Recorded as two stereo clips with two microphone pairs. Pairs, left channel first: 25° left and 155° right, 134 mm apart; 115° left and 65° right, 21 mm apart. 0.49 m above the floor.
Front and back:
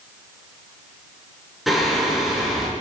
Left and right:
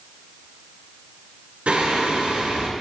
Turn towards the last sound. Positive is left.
turn(degrees=-65)